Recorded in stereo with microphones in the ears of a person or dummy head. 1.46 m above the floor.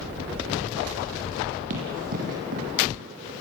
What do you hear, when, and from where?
1.7 s running footsteps: 50° right (ahead or behind), 4.5 m